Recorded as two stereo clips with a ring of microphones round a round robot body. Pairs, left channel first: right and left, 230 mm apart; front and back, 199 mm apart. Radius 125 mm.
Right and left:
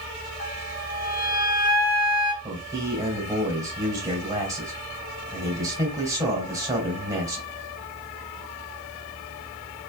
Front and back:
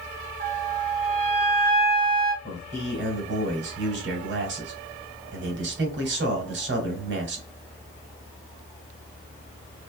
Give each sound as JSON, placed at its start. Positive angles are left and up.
{"t": 0.4, "sound": "a flute", "azimuth_deg": -140, "distance_m": 1.1}
{"t": 2.4, "sound": "a man speaking", "azimuth_deg": 165, "distance_m": 2.0}